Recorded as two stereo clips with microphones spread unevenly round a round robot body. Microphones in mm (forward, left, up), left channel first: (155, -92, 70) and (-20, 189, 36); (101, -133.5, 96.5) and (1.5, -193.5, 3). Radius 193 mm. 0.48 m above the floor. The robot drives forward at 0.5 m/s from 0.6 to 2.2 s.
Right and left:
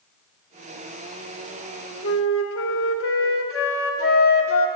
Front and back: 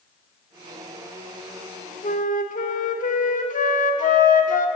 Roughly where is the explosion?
I don't hear an explosion.